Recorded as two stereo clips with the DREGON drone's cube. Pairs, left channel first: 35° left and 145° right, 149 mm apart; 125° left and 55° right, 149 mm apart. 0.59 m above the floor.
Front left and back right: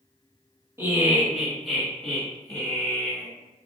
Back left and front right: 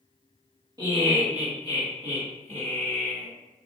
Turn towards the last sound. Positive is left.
turn(degrees=-30)